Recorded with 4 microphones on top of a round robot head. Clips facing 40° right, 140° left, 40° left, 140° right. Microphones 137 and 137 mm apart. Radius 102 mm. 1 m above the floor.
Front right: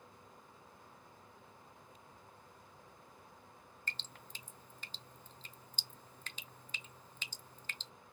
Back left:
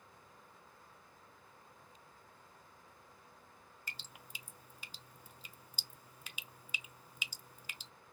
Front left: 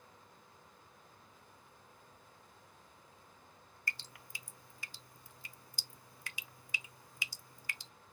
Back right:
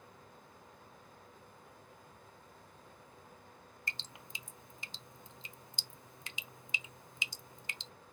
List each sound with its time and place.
3.9 s dripping: 160° right, 0.6 m